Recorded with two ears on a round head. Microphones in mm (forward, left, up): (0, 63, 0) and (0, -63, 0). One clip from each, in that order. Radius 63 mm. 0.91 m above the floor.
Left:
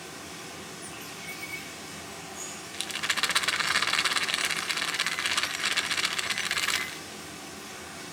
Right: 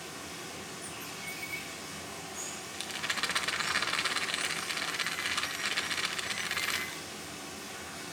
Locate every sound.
0.0 s running water: 5° right (ahead or behind), 1.8 m
2.7 s a rattle: 20° left (ahead or behind), 0.9 m